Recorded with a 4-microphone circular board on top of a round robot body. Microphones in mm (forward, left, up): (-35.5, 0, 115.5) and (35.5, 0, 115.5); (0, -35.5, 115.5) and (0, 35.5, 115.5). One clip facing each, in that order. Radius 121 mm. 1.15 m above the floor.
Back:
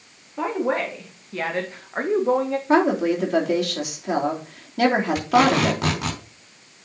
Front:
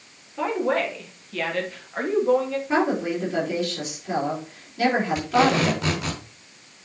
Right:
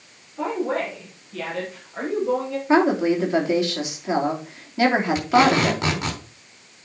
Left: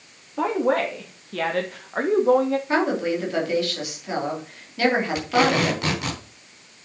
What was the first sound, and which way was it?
A woman speaking, 115° left.